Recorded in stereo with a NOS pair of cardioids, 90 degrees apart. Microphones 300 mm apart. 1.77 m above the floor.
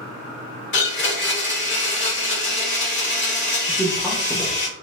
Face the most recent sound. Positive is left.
turn(degrees=5)